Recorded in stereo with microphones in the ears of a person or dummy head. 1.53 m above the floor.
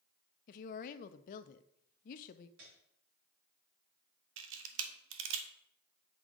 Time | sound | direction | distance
0.5 | a woman speaking | 45° left (ahead or behind) | 0.5 m
2.6 | a piano | 50° right (ahead or behind) | 2 m
4.4 | a camera shutter | 70° right (ahead or behind) | 1.0 m